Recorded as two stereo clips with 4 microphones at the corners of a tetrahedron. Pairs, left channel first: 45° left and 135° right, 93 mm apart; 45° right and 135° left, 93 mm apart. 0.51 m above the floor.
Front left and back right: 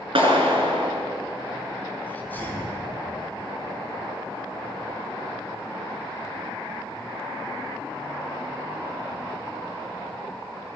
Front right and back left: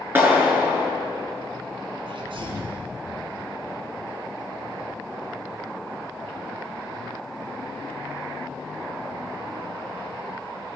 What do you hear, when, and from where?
0.1 s a clap: 160° right, 5 m
2.1 s a sneeze: 115° left, 5.5 m